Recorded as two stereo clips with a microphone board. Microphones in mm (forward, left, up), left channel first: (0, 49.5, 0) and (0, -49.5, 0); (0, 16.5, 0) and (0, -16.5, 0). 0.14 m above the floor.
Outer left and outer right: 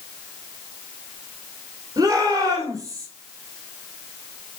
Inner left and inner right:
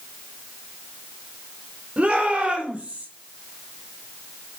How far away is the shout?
About 6 m.